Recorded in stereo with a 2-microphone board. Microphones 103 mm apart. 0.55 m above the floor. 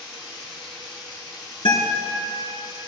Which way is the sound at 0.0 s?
65° left (ahead or behind).